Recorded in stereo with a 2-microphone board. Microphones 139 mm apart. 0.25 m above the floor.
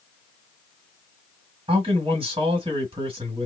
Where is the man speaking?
40° right (ahead or behind), 1.9 m.